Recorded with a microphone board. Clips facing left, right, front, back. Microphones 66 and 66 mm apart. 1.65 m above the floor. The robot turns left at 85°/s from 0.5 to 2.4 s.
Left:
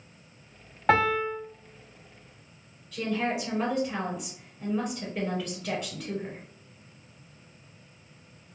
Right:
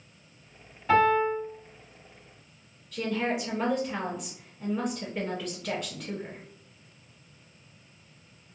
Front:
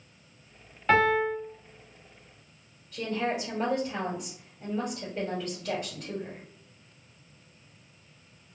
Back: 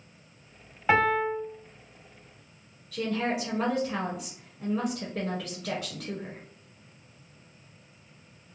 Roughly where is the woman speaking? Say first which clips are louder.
Even, back 1 dB; behind.